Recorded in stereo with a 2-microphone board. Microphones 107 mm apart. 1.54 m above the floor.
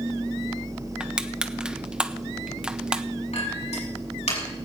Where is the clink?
80° left, 6.5 m.